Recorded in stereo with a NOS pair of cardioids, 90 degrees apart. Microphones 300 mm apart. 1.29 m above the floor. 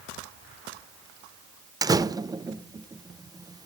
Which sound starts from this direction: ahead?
A door slam, at 1.8 s.